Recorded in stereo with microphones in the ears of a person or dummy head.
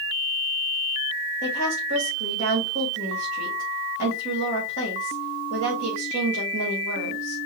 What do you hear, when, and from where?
1.4 s a woman speaking: 40° right (ahead or behind), 2 m